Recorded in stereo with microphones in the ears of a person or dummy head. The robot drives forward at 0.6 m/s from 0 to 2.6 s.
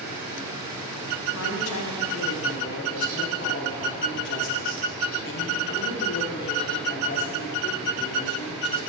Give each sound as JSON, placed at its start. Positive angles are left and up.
{"t": 1.3, "sound": "a woman speaking", "side_deg": 70, "distance_m": 0.8}